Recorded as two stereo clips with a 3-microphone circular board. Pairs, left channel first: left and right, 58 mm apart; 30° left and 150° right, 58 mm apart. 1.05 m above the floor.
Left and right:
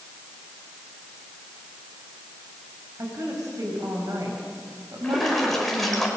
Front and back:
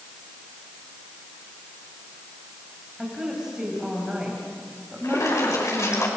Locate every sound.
3.0 s a woman speaking: 75° right, 6 m
5.0 s a splash: 10° left, 5 m